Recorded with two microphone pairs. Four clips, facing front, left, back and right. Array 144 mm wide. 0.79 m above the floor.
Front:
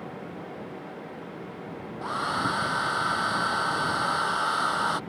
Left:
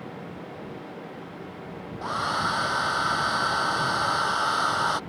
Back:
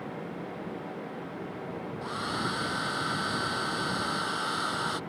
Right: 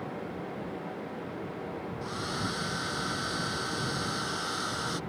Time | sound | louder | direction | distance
2.0 | a hair dryer | left 10 dB, front 6 dB | 60° left | ?